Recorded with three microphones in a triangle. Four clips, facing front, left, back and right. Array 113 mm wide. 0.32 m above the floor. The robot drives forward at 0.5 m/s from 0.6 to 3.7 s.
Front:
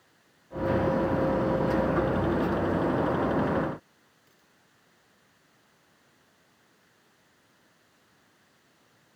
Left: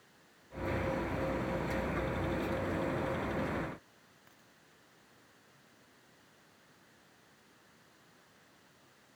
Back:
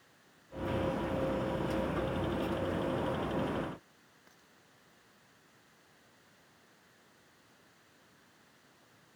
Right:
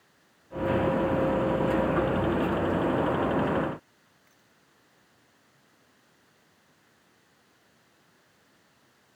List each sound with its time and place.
4.3 s a dropped coin: 140° left